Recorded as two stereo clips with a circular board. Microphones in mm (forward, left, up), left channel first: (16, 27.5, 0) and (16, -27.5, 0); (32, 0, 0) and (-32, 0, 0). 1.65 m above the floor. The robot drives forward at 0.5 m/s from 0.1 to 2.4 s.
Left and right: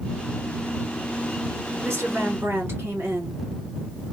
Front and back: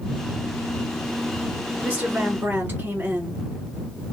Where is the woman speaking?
125° right, 1.3 m; by 3.4 s 130° right, 1.5 m.